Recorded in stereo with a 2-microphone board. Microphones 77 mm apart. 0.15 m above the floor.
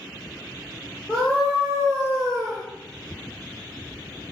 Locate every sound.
1.1 s a scream: 15° right (ahead or behind), 4.5 m; by 2.6 s 5° left (ahead or behind), 3 m